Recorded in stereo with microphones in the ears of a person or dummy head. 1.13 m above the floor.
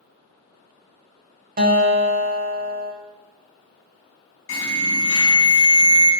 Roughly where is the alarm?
Left.